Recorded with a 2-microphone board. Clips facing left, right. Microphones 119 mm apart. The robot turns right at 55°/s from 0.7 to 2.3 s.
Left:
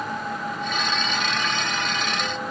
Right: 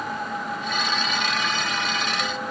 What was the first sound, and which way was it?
Only background noise.